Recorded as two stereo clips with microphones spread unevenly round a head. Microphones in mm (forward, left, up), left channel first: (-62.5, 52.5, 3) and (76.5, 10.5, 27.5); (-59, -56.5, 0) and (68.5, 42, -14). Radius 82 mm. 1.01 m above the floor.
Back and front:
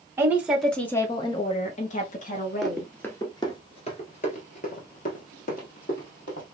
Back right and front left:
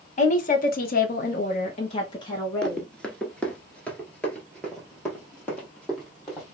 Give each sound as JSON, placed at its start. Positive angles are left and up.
{"t": 0.2, "sound": "a woman speaking", "azimuth_deg": -100, "distance_m": 1.0}
{"t": 2.6, "sound": "running footsteps", "azimuth_deg": -75, "distance_m": 1.0}